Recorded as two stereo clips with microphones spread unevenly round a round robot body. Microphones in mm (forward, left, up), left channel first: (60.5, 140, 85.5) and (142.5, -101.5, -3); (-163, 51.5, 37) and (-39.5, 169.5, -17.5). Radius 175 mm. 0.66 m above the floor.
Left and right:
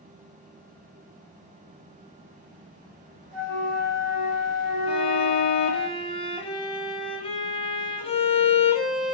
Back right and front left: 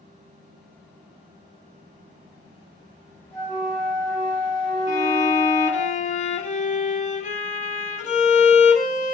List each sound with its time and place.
3.3 s a flute: 30° right, 3.5 m
4.9 s a violin: 165° right, 0.8 m